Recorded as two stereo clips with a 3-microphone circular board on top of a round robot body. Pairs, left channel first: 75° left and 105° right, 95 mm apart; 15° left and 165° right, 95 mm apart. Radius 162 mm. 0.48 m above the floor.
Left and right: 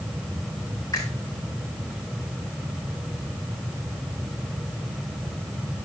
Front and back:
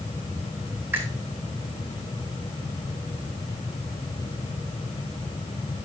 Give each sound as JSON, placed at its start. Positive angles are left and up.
{"t": 0.9, "sound": "a finger snap", "azimuth_deg": 130, "distance_m": 4.5}